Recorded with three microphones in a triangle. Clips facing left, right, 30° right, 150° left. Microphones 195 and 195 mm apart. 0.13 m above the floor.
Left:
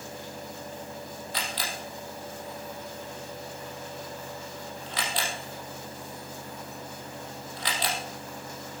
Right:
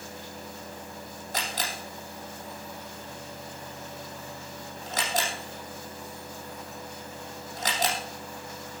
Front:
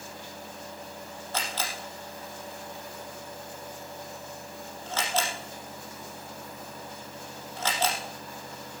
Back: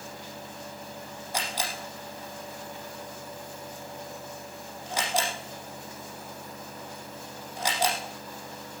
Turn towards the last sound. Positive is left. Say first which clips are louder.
# right 3 dB, back 1 dB
turn(degrees=-135)